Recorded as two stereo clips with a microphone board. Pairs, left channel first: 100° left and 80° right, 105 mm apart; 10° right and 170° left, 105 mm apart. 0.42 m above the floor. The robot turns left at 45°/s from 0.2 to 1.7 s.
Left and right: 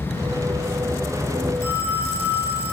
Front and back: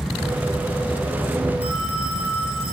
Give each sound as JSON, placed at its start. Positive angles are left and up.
{"t": 1.6, "sound": "a phone ringing", "azimuth_deg": 0, "distance_m": 4.5}